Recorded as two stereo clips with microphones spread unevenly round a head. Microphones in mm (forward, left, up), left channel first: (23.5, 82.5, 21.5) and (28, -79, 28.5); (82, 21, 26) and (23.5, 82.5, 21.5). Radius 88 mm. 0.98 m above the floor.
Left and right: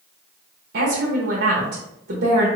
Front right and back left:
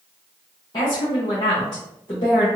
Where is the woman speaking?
100° right, 0.9 m.